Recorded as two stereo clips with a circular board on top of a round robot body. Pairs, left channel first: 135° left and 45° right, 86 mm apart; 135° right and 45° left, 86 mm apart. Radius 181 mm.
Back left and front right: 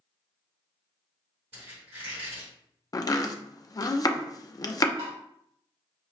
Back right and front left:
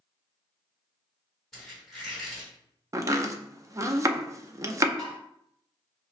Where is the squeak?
45° right, 1.5 m.